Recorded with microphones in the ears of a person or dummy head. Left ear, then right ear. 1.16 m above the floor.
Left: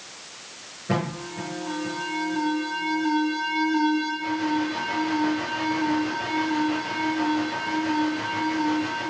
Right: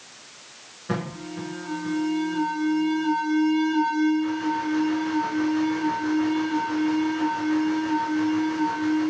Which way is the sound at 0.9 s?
35° right (ahead or behind).